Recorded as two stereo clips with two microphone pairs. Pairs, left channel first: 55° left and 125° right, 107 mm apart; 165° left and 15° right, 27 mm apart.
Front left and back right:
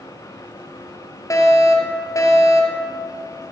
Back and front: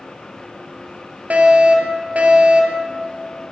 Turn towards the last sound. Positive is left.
turn(degrees=0)